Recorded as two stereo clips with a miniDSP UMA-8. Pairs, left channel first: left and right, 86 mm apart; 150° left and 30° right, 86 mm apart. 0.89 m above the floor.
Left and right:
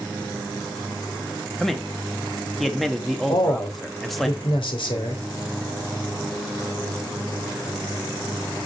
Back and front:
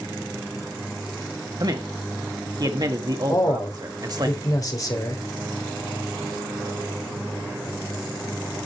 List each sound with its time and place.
1.6 s a man speaking: straight ahead, 1.6 m
3.3 s a man speaking: 100° left, 3 m